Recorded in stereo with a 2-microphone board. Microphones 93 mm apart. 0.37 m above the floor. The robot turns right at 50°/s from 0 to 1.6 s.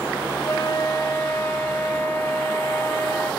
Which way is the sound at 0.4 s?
90° left.